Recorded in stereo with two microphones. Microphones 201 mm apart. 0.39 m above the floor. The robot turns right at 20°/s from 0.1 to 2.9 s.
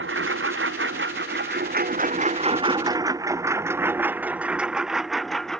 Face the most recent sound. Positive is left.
turn(degrees=5)  # may be behind; listen again after turning